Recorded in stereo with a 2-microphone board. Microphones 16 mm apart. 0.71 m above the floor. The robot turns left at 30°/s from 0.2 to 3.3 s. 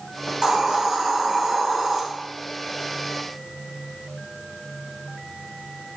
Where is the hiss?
110° right, 1.2 m; by 2.0 s 160° right, 1.2 m.